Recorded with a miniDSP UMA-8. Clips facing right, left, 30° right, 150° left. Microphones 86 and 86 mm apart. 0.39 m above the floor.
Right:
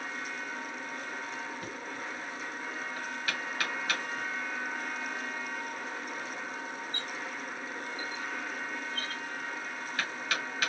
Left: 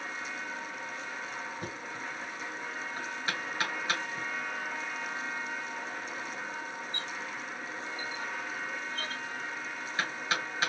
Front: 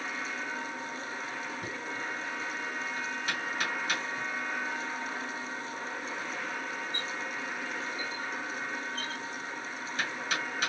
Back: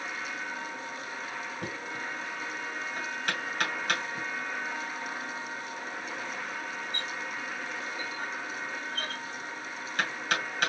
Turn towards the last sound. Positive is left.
turn(degrees=150)